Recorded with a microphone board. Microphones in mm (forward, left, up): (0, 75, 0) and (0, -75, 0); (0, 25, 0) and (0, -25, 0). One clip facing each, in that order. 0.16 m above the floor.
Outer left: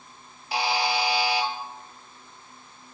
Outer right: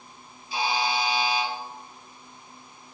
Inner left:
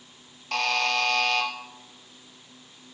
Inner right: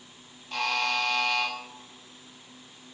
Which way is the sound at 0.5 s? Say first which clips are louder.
Outer left 1 dB, inner left 3 dB; 75° left (ahead or behind).